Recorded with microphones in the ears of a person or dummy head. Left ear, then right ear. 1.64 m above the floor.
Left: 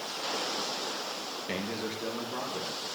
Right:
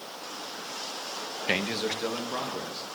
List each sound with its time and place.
1.5 s a man speaking: 50° right (ahead or behind), 0.6 m; by 2.9 s 40° right (ahead or behind), 2.5 m